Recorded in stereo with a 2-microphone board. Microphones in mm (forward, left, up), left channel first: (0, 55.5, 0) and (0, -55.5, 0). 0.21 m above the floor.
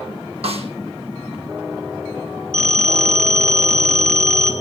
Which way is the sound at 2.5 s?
10° left (ahead or behind).